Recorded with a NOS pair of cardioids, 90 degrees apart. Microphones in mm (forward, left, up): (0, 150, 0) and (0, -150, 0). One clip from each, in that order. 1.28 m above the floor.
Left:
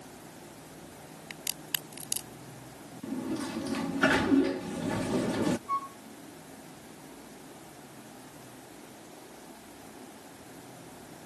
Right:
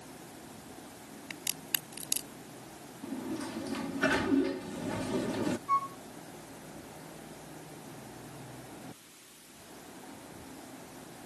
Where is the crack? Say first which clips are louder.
Even; 5° right.